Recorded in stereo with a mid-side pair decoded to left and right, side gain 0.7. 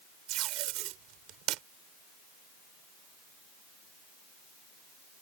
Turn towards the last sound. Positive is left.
turn(degrees=-60)